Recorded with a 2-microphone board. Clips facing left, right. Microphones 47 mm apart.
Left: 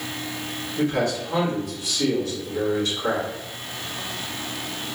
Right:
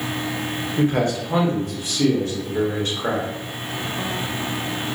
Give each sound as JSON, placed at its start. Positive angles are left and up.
{"t": 0.8, "sound": "a man speaking", "side_deg": -45, "distance_m": 1.3}